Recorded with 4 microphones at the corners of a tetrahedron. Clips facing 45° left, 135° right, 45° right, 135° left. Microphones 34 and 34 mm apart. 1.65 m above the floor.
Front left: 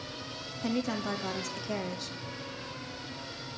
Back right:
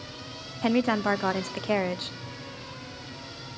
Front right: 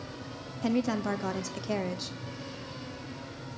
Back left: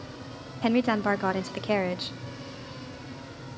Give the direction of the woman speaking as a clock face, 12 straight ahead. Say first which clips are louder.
Back right 8 dB, back left 5 dB; 6 o'clock.